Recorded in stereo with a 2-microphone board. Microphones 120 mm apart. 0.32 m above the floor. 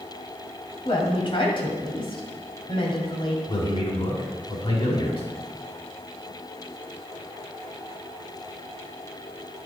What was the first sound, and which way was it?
A woman speaking, 50° left (ahead or behind).